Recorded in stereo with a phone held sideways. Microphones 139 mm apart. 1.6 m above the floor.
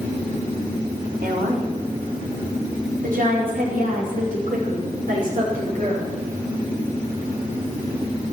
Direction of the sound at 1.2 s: 85° right.